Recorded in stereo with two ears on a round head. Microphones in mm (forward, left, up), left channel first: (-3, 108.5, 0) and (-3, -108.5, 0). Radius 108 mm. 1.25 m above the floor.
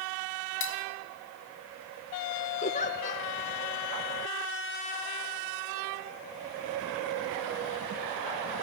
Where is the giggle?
30° left (ahead or behind), 0.6 m.